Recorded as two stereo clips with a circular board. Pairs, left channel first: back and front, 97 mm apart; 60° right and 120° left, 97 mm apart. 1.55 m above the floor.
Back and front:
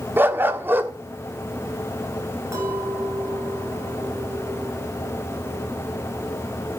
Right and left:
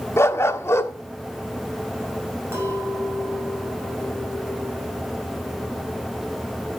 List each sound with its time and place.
0.2 s a dog barking: 40° right, 1.2 m
2.5 s a clink: 60° left, 6.5 m